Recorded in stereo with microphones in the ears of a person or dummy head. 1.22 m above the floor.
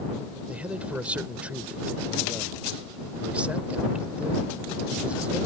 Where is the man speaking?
10° right (ahead or behind).